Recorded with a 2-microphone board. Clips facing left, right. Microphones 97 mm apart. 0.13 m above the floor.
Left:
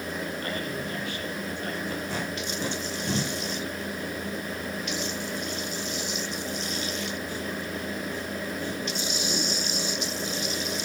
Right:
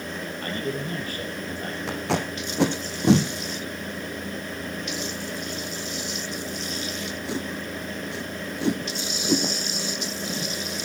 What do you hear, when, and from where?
0.4 s a man speaking: 40° right (ahead or behind), 3.5 m
1.9 s tape being pulled: 75° right (ahead or behind), 2.5 m